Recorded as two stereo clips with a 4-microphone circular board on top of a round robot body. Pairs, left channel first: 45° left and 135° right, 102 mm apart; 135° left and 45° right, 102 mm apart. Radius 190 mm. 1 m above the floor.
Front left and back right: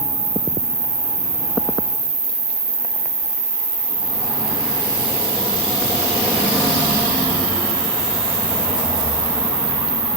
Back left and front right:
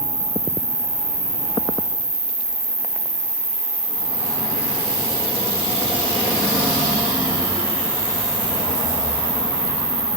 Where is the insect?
85° right, 6.5 m.